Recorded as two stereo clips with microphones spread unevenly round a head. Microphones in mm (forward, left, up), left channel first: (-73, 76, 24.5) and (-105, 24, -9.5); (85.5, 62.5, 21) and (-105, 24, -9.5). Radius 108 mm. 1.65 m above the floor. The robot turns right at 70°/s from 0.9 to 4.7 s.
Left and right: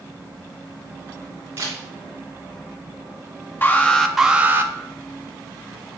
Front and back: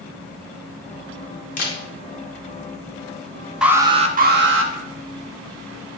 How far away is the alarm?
About 1.3 m.